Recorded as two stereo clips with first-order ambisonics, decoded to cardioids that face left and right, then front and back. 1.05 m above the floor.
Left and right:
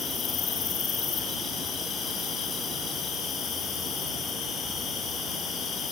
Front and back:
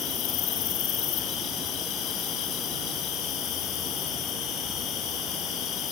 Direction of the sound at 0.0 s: 30° left.